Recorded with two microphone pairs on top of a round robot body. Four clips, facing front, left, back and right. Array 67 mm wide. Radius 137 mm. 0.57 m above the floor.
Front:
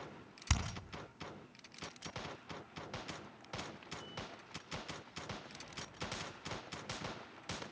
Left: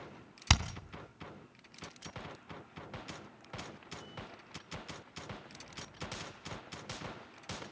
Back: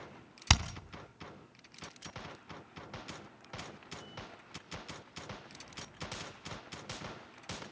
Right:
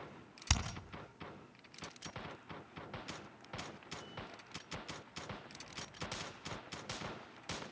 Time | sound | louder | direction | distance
0.5 | hammering | left 7 dB, back 9 dB | 145° left | 2.5 m